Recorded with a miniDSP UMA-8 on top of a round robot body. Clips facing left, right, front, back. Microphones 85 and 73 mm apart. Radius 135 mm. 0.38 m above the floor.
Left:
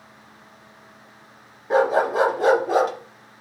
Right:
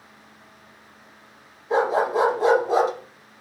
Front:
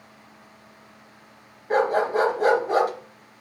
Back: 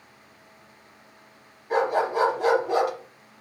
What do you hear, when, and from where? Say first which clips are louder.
1.7 s a dog barking: left 2 dB, front 2 dB; 55° left, 2 m